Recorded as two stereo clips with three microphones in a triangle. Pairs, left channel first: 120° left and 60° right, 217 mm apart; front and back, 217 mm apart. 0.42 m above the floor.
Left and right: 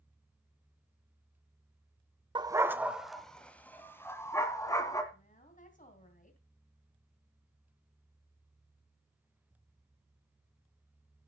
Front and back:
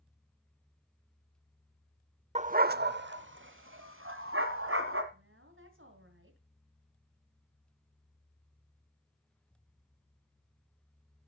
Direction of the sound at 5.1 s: 170° left.